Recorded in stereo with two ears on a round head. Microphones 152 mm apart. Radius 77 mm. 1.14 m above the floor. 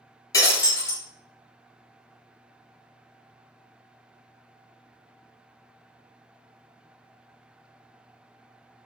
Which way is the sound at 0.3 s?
20° left (ahead or behind).